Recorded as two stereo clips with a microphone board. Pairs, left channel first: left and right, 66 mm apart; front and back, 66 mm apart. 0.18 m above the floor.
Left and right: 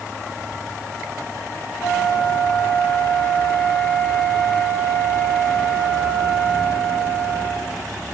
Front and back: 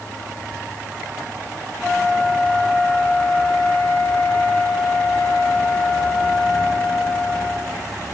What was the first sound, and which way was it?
A flute, 75° left.